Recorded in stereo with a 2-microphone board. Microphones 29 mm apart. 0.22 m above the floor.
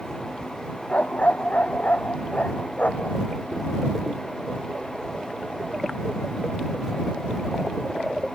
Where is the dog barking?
55° left (ahead or behind); by 3.2 s 60° left (ahead or behind).